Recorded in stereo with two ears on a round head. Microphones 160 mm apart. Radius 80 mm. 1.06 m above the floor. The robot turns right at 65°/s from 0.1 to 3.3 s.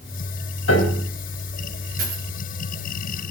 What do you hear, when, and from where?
0.7 s a piano: 80° left, 3.5 m; by 1.1 s 70° left (ahead or behind), 3.5 m
2.0 s a dropped coin: 55° right (ahead or behind), 8.5 m; by 2.2 s 70° right (ahead or behind), 8.5 m